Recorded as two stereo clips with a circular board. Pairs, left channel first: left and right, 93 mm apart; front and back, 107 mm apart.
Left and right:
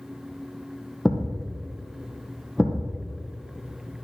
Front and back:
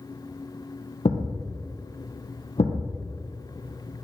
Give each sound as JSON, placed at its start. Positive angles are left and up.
{"t": 1.1, "sound": "a thud", "azimuth_deg": 5, "distance_m": 2.0}